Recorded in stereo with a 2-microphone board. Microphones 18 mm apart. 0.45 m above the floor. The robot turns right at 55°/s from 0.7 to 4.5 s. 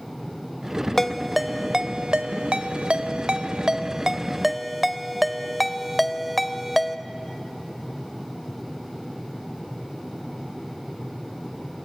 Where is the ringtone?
10° left (ahead or behind), 0.7 m; by 7.0 s centre (ahead or behind), 0.7 m.